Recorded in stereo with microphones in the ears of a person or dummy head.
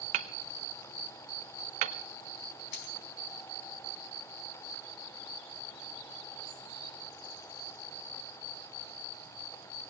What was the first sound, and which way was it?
Hammering, 35° right (ahead or behind).